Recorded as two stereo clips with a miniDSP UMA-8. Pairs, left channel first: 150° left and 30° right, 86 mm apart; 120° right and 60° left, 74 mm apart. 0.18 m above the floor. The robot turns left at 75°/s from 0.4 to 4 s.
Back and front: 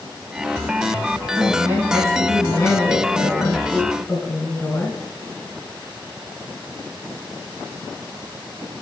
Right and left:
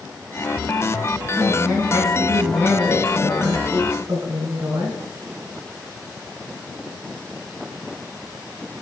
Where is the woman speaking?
70° right, 1.4 m; by 5.0 s 95° left, 1.4 m.